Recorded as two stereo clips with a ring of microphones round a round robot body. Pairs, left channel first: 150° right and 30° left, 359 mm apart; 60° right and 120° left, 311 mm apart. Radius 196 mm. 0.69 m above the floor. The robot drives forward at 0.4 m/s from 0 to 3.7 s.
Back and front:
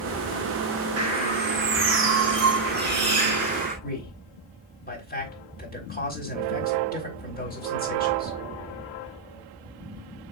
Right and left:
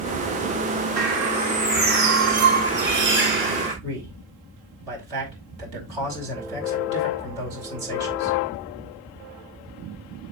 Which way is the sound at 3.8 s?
140° left.